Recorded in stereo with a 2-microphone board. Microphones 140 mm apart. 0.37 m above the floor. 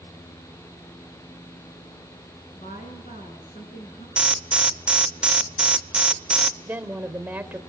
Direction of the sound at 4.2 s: 10° right (ahead or behind).